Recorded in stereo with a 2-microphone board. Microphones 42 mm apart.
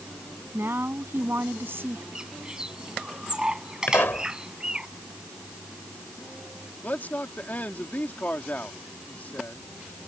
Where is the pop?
70° left (ahead or behind).